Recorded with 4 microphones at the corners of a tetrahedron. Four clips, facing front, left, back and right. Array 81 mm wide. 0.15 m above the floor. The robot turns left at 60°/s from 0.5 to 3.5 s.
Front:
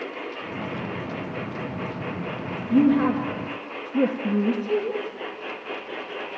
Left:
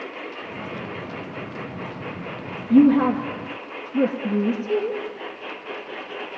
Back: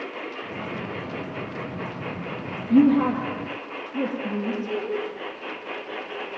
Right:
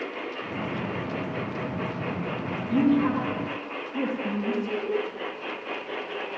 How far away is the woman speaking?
About 3 m.